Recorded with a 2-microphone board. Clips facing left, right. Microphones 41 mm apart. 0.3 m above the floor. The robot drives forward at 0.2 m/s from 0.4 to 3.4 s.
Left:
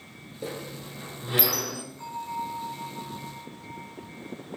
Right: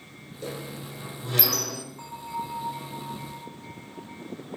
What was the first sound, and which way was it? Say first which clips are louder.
A squeak: even; 15° left (ahead or behind).